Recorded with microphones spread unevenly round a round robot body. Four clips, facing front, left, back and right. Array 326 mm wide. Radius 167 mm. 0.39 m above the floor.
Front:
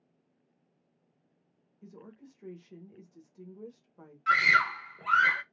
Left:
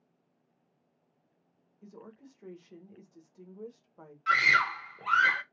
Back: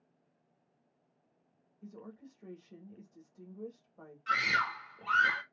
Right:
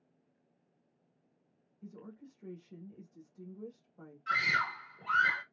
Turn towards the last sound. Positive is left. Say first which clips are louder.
# left 6 dB, front 6 dB
turn(degrees=65)